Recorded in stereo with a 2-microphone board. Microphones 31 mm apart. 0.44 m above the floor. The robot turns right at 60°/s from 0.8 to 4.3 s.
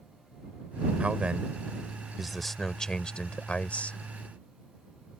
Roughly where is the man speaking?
Right.